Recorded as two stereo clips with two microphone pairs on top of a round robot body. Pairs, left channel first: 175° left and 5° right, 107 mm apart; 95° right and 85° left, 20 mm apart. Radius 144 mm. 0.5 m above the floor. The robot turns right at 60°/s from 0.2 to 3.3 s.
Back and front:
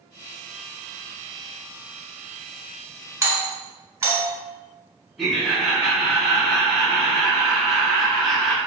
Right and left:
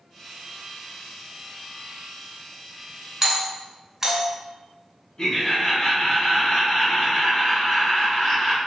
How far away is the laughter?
About 1.3 m.